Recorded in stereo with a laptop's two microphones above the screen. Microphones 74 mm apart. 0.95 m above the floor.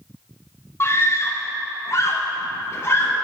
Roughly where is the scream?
Left.